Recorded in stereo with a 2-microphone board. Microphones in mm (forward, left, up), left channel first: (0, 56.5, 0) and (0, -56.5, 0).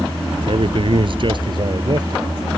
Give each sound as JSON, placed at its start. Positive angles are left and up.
{"t": 0.5, "sound": "a man speaking", "side_deg": -60}